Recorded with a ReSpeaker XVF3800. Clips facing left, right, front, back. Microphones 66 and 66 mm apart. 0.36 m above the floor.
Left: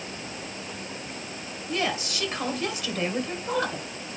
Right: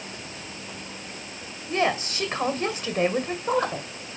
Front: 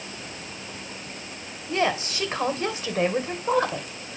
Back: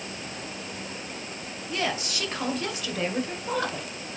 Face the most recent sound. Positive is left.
turn(degrees=-50)